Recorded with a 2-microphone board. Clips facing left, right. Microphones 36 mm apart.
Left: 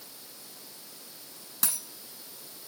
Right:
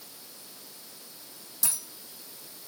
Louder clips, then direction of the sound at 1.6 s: Left 1 dB; 55° left (ahead or behind).